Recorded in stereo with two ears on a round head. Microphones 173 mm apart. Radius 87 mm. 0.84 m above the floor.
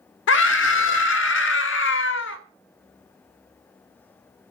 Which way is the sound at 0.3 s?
70° left (ahead or behind).